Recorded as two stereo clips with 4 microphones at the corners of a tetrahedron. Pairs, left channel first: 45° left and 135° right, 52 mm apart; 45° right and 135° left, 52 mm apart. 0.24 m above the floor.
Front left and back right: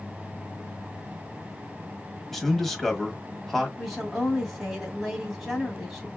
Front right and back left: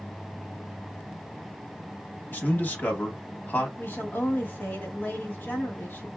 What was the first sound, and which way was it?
A man speaking, 40° right.